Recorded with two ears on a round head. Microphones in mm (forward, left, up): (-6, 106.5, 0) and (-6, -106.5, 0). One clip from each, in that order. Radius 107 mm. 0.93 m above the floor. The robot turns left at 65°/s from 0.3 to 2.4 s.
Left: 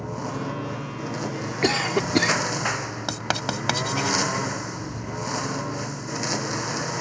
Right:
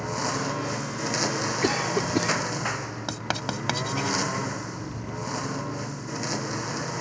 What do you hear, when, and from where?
0.0 s a lawn mower: 55° right; by 7.0 s 170° left
1.6 s a cough: 160° left; by 2.4 s 110° left
3.1 s writing: 10° left (ahead or behind)